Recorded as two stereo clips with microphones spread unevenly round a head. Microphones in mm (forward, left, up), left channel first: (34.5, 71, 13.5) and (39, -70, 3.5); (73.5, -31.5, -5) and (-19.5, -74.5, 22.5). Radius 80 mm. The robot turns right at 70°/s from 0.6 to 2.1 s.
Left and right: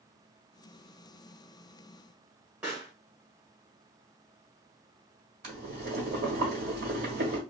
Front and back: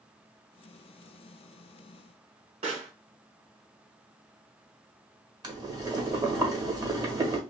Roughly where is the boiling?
Behind right.